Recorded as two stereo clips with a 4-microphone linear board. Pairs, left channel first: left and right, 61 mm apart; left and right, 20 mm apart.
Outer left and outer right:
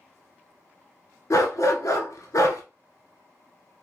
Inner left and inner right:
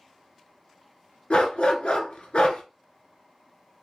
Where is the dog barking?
60° left (ahead or behind), 1.0 m.